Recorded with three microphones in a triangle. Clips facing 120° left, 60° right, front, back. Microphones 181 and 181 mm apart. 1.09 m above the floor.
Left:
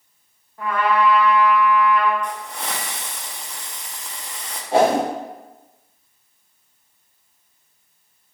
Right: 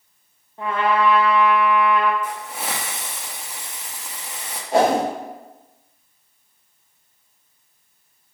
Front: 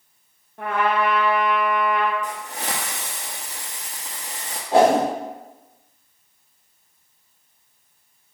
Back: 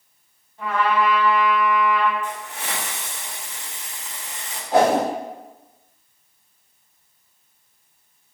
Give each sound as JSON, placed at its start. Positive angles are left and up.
{"t": 0.6, "sound": "a trumpet", "azimuth_deg": 0, "distance_m": 0.6}
{"t": 2.2, "sound": "a hiss", "azimuth_deg": 20, "distance_m": 0.6}
{"t": 4.7, "sound": "a whoosh", "azimuth_deg": 60, "distance_m": 2.0}